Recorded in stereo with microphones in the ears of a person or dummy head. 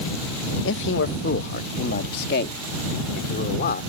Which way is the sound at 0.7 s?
70° left (ahead or behind).